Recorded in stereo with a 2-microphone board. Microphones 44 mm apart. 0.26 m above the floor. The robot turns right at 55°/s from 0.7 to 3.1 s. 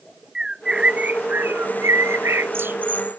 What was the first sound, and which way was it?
A bird, 15° right (ahead or behind).